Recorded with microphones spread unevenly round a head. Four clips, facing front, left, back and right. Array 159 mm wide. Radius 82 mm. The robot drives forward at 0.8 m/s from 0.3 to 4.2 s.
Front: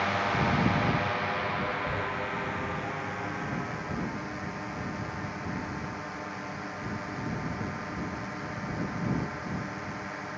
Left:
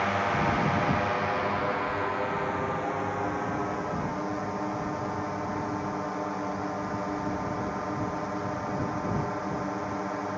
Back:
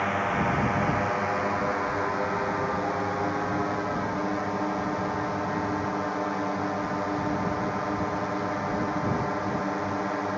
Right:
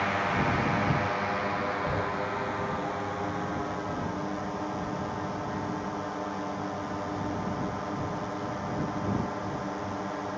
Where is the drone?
135° left; by 10.4 s 165° left.